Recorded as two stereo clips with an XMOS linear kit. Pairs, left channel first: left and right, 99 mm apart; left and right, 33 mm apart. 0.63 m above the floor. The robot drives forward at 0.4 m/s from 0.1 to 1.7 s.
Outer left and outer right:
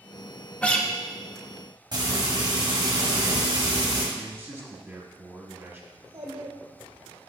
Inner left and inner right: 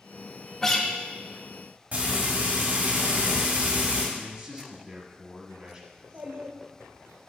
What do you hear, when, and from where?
0.6 s a guitar: 15° left (ahead or behind), 0.8 m
1.9 s frying: 50° right (ahead or behind), 1.8 m
4.2 s a man speaking: 25° right (ahead or behind), 1.2 m
5.9 s a child speaking: 75° right (ahead or behind), 1.3 m